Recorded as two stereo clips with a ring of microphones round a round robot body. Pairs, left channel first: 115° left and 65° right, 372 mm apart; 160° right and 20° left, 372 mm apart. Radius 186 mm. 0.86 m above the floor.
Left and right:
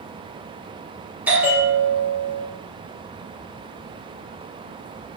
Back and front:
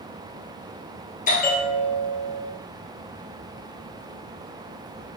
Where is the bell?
145° right, 0.7 m.